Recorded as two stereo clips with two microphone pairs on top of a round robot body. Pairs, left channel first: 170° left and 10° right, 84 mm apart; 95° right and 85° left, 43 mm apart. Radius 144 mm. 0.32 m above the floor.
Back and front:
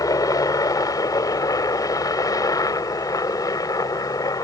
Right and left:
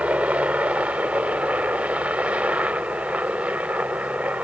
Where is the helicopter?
130° left.